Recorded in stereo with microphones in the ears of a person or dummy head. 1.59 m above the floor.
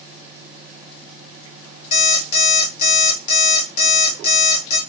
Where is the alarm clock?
55° left (ahead or behind), 1.8 m.